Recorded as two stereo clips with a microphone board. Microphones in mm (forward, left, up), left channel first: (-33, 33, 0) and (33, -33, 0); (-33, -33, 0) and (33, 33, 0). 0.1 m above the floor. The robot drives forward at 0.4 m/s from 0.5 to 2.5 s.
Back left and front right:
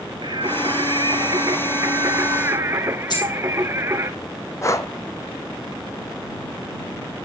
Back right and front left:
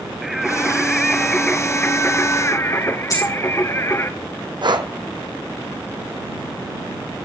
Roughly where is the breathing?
Left.